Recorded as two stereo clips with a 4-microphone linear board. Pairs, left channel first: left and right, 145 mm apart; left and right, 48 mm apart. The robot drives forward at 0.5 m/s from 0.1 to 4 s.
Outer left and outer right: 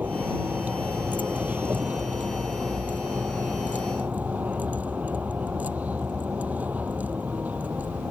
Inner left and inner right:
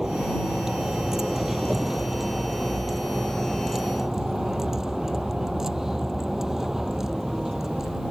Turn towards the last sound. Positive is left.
turn(degrees=-10)  # may be behind; listen again after turning